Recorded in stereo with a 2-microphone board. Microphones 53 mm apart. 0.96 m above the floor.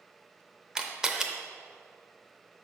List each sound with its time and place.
0.8 s a camera shutter: 10° right (ahead or behind), 0.7 m